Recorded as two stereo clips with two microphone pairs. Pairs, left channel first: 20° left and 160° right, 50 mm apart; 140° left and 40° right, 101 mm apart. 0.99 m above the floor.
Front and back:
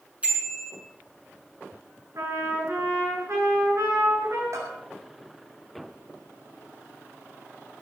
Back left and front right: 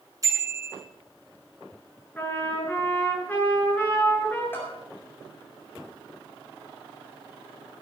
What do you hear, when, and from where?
0.2 s a bicycle bell: 95° right, 8 m
2.1 s a trumpet: 145° right, 9.5 m
4.5 s a bell: 150° right, 7 m